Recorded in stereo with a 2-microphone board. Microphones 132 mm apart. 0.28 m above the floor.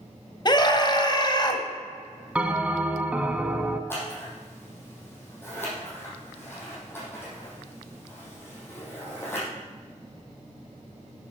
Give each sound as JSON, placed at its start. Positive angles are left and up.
{"t": 0.5, "sound": "a scream", "side_deg": 35, "distance_m": 1.5}
{"t": 2.4, "sound": "a bell", "side_deg": -10, "distance_m": 0.8}
{"t": 3.9, "sound": "scissors", "side_deg": 15, "distance_m": 5.0}